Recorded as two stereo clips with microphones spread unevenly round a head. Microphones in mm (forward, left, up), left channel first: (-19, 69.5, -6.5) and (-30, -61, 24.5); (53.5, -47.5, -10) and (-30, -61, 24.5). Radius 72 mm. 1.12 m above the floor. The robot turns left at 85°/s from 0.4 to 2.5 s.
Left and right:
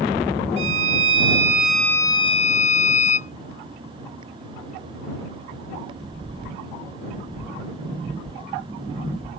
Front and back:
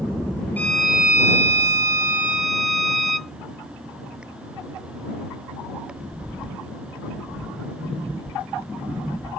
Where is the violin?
75° right; by 3.4 s 120° left.